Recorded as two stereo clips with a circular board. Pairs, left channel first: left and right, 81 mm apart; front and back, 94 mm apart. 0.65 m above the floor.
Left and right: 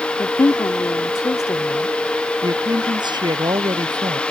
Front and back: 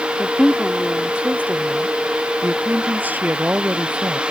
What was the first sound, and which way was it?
A woman speaking, 70° left.